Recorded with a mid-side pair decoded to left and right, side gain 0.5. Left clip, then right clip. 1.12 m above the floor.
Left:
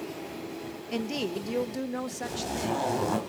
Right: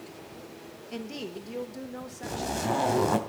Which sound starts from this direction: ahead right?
A zipper, at 2.2 s.